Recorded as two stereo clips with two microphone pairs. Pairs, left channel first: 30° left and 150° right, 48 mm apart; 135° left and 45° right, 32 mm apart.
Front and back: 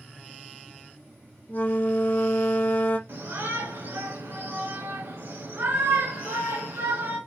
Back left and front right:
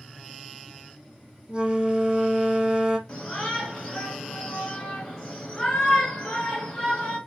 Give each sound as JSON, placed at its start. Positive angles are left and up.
{"t": 1.5, "sound": "a flute", "azimuth_deg": 5, "distance_m": 0.7}
{"t": 3.1, "sound": "a shout", "azimuth_deg": -150, "distance_m": 3.0}